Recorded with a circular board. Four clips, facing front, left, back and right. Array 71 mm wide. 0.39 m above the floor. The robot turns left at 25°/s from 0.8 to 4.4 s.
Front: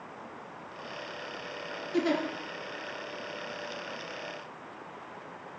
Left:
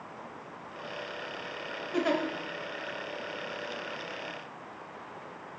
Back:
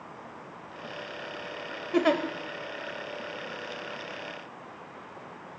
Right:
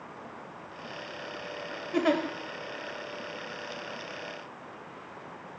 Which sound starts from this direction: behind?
A giggle, at 1.9 s.